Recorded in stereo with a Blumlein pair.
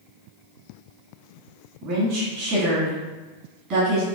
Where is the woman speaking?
40° right, 1.4 m.